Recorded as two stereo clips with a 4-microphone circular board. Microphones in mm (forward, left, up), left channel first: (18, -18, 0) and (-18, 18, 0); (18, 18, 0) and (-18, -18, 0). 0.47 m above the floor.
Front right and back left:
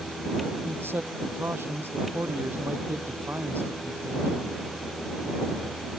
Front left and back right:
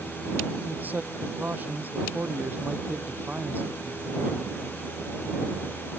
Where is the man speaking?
175° left.